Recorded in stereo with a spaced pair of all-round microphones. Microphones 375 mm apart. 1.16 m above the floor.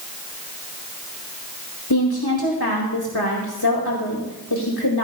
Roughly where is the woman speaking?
Left.